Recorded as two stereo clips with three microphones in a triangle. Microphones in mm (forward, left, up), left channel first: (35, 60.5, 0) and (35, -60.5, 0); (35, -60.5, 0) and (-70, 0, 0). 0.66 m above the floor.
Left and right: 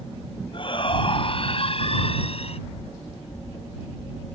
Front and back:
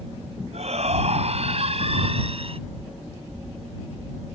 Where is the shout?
130° left; by 2.6 s 115° left.